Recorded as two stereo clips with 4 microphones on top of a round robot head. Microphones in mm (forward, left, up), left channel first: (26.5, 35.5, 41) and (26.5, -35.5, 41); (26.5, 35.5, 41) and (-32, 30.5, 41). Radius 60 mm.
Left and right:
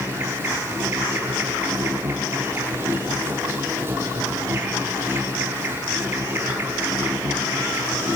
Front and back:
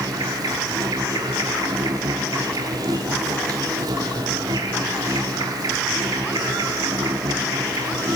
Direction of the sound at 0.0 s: 155° right.